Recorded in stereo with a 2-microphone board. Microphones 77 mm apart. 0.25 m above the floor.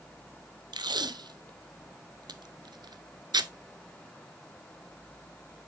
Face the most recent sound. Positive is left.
turn(degrees=-80)